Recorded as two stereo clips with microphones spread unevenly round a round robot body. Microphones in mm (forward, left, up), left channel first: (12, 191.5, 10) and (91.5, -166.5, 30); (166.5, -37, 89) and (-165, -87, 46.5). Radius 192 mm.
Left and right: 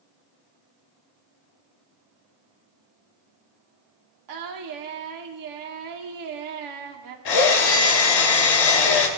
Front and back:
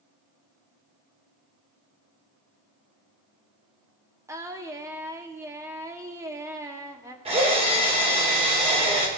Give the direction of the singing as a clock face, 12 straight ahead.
3 o'clock.